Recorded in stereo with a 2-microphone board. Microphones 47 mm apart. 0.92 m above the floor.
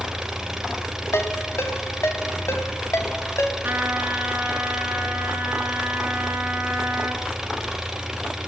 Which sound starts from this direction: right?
A trumpet, at 3.6 s.